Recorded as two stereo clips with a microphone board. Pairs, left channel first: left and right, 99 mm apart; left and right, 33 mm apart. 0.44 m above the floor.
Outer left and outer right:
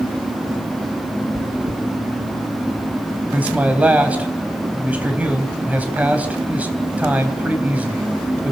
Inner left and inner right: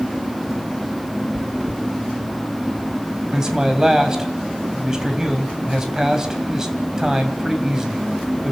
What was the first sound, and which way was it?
Chewing, 65° right (ahead or behind).